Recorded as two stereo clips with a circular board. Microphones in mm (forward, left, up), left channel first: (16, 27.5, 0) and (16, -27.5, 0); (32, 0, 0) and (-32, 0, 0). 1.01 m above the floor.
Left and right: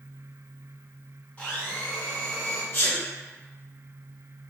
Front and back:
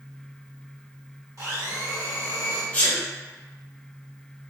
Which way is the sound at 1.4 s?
155° left.